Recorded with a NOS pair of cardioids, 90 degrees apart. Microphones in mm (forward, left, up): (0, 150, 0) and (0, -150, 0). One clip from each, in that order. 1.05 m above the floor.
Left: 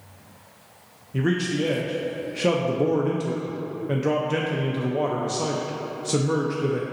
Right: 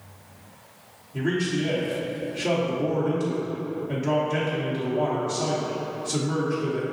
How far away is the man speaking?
About 0.6 m.